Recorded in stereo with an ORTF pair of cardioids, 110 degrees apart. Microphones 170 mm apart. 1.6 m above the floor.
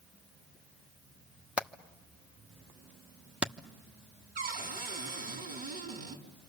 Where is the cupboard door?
65° right, 4.5 m.